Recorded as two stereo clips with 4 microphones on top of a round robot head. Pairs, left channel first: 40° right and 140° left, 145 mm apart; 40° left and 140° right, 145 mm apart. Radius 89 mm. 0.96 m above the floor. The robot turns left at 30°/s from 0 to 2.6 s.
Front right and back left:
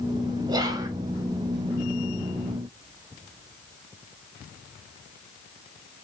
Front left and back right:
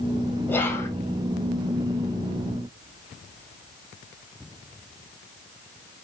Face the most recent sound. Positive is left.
turn(degrees=45)